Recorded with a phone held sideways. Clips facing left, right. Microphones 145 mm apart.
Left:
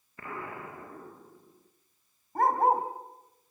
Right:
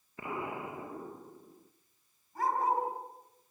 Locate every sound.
0.2 s an explosion: 20° right (ahead or behind), 1.3 m
2.4 s a dog barking: 60° left (ahead or behind), 3.5 m